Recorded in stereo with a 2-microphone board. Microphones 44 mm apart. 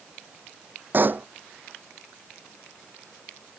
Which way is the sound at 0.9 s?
45° right (ahead or behind).